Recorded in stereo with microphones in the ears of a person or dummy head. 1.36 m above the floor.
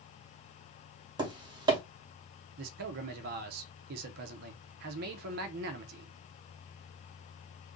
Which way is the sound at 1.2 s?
25° right (ahead or behind).